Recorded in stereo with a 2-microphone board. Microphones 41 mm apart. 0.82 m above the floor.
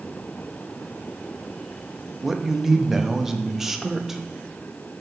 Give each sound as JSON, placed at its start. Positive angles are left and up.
{"t": 2.2, "sound": "a man speaking", "side_deg": -10, "distance_m": 0.6}